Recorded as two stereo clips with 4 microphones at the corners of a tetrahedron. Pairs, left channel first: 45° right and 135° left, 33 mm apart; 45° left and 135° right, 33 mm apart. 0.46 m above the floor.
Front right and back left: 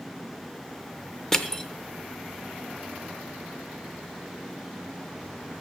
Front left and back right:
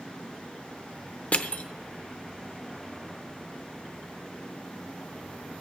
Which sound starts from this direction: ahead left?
Crushing, at 1.3 s.